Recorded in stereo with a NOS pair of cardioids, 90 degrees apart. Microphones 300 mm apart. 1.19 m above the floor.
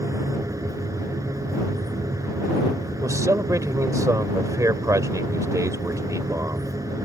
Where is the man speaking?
10° right.